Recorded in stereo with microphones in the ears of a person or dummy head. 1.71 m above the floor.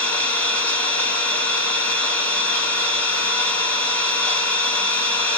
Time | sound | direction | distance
0.0 | an engine running | 15° left (ahead or behind) | 2.5 m